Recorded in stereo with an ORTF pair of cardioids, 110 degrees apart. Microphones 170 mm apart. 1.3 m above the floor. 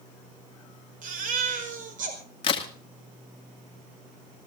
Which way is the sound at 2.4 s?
30° left.